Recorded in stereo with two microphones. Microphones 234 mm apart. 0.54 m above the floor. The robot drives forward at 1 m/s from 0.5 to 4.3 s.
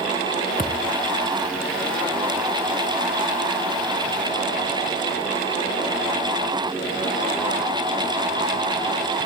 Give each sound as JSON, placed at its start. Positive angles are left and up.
{"t": 0.6, "sound": "a thud", "side_deg": 35}